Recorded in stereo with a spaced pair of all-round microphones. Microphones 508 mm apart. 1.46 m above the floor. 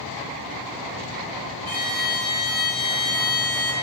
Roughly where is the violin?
Left.